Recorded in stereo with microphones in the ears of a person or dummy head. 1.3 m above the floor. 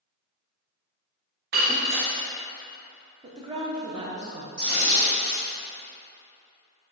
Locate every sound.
1.5 s breaking glass: 50° right (ahead or behind), 0.6 m
3.2 s a woman speaking: 25° right (ahead or behind), 0.7 m
4.6 s tearing paper: 50° right (ahead or behind), 1.3 m